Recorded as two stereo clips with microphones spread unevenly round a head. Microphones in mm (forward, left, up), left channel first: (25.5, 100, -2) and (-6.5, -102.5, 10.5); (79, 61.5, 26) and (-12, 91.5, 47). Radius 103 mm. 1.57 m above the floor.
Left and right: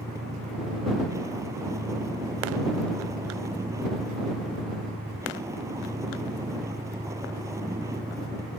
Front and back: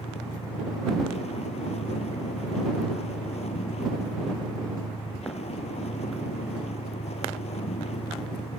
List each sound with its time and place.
0.0 s a vehicle: 25° right